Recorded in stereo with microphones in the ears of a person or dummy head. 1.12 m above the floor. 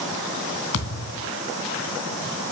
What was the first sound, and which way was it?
A thud, 70° left (ahead or behind).